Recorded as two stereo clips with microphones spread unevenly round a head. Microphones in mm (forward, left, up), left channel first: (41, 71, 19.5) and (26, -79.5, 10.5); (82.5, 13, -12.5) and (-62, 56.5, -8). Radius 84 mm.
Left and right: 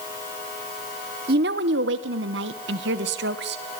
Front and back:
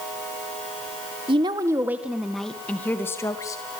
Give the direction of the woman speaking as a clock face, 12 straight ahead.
4 o'clock.